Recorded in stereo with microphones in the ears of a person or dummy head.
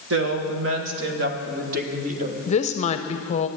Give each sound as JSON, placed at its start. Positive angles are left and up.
{"t": 0.1, "sound": "a woman speaking", "side_deg": -70, "distance_m": 1.2}
{"t": 2.5, "sound": "a woman speaking", "side_deg": 30, "distance_m": 0.7}